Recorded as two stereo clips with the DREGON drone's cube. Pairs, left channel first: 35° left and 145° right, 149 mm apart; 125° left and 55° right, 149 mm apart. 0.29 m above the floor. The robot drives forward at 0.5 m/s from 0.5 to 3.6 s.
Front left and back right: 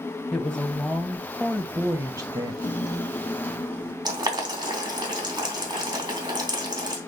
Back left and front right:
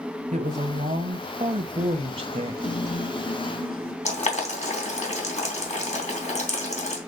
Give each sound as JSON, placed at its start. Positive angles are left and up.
{"t": 0.3, "sound": "a woman speaking", "azimuth_deg": -50, "distance_m": 1.6}
{"t": 2.6, "sound": "a guitar", "azimuth_deg": 95, "distance_m": 1.6}
{"t": 4.0, "sound": "boiling", "azimuth_deg": 155, "distance_m": 3.0}